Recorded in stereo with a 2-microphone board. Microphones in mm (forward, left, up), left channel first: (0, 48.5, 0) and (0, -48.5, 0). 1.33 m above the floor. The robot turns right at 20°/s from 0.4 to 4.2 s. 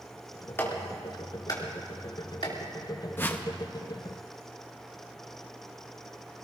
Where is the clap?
25° left (ahead or behind), 2.5 m; by 2.5 s 65° left (ahead or behind), 2.5 m.